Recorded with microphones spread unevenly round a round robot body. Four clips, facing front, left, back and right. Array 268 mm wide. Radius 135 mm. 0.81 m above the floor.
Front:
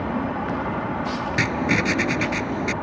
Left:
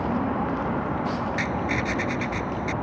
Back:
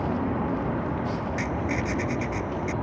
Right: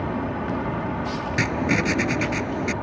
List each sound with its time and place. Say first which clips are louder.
1.4 s writing: right 3 dB, front 5 dB; 35° right